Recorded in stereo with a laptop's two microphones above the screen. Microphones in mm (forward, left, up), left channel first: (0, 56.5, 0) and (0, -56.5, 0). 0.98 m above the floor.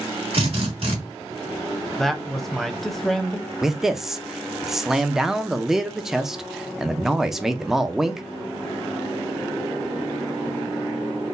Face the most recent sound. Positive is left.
turn(degrees=-5)  # may be behind; listen again after turning